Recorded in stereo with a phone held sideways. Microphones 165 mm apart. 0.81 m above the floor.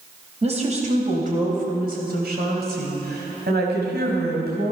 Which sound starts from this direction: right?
A woman speaking, at 0.4 s.